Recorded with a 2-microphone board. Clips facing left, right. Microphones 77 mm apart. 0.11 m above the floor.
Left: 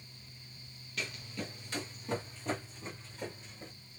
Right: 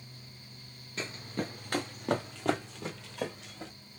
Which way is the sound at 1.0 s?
30° right (ahead or behind).